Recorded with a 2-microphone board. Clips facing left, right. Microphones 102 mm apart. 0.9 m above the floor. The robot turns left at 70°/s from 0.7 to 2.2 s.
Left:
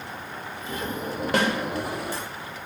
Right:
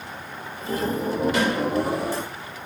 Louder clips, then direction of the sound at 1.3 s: Left 3 dB; 60° left (ahead or behind).